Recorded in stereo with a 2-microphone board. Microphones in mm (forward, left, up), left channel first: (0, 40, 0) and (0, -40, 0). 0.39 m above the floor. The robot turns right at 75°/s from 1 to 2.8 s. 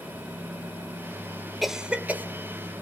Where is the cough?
Centre (ahead or behind), 0.9 m; by 2.2 s 25° right (ahead or behind), 0.9 m.